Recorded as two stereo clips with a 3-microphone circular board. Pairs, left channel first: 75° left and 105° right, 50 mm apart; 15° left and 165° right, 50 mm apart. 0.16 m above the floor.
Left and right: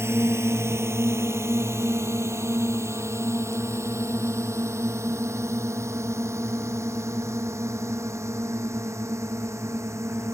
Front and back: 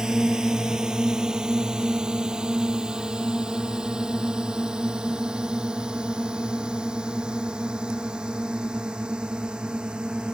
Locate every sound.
0.0 s a drone: 90° right; by 10.3 s 95° right